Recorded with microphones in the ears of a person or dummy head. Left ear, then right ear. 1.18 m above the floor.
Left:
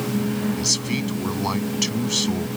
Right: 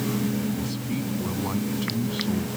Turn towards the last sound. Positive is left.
turn(degrees=75)  # may be behind; listen again after turning